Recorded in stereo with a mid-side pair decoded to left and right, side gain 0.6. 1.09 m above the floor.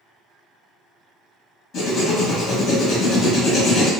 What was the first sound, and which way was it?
Writing, 55° left.